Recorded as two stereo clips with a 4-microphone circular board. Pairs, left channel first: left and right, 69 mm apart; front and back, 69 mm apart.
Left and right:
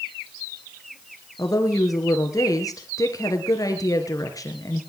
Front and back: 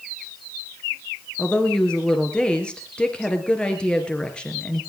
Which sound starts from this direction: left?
A woman speaking, at 1.4 s.